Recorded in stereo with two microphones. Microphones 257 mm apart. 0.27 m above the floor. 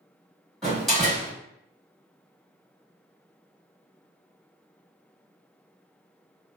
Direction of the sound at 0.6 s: Centre (ahead or behind).